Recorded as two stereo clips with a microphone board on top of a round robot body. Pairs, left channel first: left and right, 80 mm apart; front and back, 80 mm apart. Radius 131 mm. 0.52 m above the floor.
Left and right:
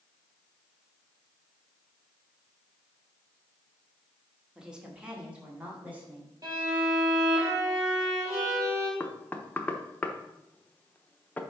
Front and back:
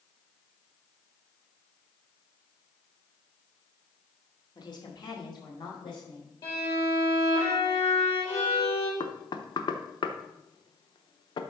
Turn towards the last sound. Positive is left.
turn(degrees=20)